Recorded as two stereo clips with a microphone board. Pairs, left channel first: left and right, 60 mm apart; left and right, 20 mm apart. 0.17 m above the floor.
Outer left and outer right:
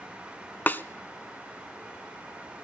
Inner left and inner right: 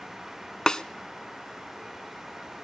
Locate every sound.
0.7 s a snare drum: 35° left (ahead or behind), 0.5 m